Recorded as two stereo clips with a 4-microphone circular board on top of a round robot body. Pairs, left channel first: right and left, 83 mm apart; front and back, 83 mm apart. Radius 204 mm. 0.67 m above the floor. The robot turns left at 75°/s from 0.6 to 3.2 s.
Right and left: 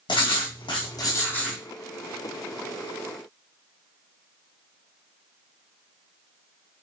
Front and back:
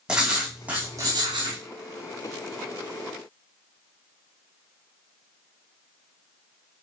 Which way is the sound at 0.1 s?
100° right.